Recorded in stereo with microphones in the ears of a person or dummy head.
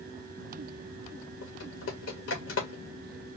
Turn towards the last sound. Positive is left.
turn(degrees=60)  # may be behind; listen again after turning